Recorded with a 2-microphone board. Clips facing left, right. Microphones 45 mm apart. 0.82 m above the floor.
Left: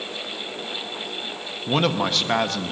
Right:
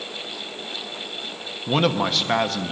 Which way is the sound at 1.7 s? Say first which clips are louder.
Right 1 dB; centre (ahead or behind).